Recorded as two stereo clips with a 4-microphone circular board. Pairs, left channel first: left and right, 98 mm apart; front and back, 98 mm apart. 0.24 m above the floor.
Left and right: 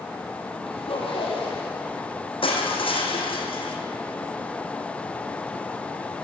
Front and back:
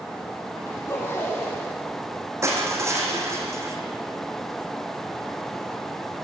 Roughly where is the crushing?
Behind left.